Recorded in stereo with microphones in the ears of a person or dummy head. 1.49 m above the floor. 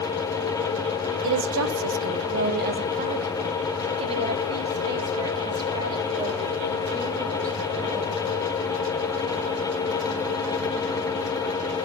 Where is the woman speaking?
50° right (ahead or behind), 1.0 m; by 8.4 s 25° right (ahead or behind), 7.5 m.